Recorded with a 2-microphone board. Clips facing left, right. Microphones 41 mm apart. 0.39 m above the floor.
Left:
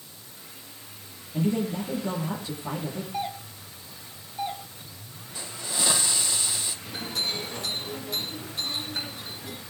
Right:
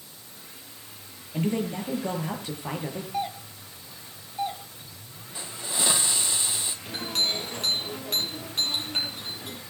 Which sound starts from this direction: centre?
A doorbell, at 3.1 s.